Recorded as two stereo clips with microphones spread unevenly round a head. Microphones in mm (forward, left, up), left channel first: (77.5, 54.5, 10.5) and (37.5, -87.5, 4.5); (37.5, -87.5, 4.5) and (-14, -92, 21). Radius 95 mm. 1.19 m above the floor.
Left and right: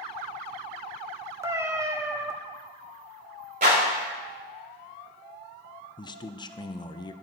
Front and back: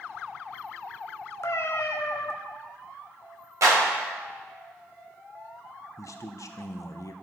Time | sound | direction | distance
1.4 | a cat meowing | 35° right | 1.1 m
3.6 | a clap | 160° right | 4.5 m
6.0 | a man speaking | 10° left | 0.7 m